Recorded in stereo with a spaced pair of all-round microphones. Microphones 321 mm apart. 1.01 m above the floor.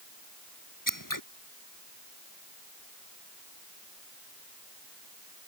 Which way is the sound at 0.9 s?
80° left.